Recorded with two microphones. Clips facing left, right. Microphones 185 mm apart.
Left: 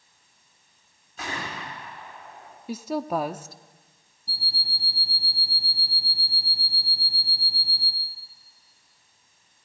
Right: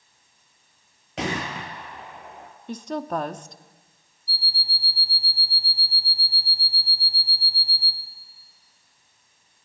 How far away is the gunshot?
About 4 m.